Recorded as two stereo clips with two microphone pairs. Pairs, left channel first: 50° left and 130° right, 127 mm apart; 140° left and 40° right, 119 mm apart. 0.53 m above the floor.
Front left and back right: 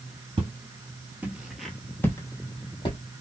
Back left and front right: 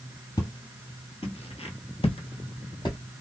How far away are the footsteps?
About 1.0 m.